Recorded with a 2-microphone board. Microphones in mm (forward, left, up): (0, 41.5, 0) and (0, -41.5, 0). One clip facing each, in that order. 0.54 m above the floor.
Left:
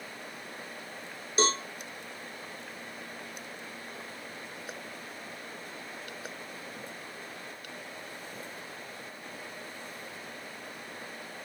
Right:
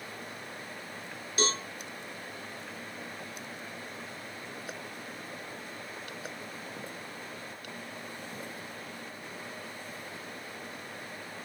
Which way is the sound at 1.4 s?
25° left (ahead or behind).